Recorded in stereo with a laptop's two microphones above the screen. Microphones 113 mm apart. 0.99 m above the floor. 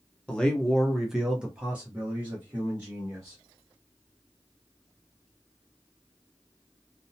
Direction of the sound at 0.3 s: 10° left (ahead or behind).